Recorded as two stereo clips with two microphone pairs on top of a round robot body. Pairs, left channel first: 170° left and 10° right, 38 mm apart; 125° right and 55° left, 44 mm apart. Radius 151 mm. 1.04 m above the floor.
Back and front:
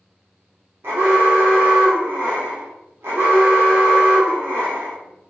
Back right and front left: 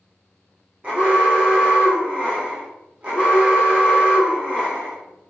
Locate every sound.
0.8 s an alarm: 15° right, 0.9 m